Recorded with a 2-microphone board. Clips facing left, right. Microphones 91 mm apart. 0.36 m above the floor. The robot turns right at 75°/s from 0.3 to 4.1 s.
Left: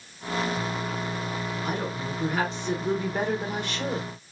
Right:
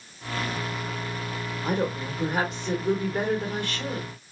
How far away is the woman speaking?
About 1.1 m.